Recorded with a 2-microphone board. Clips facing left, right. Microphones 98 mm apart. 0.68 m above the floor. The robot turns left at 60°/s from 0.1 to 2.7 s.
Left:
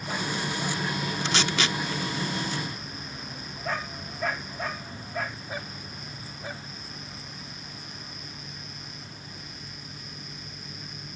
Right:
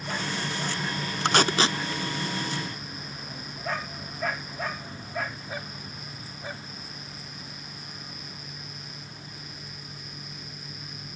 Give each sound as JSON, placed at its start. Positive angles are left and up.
{"t": 1.2, "sound": "tape being pulled", "side_deg": -55}